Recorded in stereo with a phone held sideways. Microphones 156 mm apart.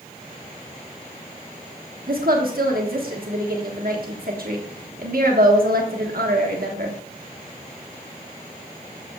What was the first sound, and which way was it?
A woman speaking, 70° right (ahead or behind).